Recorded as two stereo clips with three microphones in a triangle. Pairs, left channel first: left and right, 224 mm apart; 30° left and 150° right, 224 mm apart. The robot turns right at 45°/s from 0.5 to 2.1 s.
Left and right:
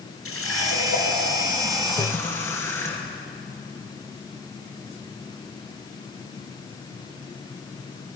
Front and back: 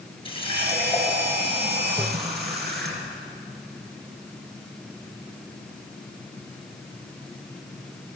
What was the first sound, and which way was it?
A running tap, 95° left.